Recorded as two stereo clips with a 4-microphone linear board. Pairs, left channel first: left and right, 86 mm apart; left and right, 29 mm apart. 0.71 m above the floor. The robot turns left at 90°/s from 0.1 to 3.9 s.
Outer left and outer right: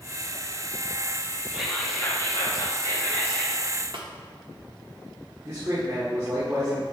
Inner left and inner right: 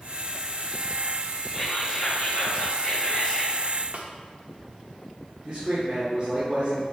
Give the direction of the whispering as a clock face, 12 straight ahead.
6 o'clock.